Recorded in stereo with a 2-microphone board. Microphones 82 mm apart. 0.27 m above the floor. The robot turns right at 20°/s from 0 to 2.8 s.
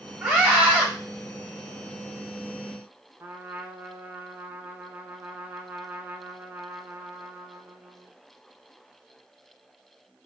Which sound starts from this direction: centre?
A scream, at 0.2 s.